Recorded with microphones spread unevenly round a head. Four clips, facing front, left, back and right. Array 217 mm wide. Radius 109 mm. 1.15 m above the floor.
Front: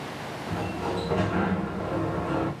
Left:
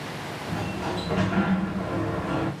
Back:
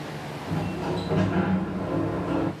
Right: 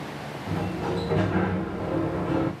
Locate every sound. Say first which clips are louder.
0.5 s a sliding door: right 2 dB, back 1 dB; 105° right, 0.8 m